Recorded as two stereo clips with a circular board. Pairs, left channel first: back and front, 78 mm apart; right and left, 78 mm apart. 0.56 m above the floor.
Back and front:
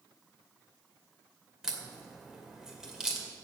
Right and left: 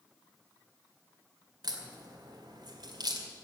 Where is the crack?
80° left, 2.5 m.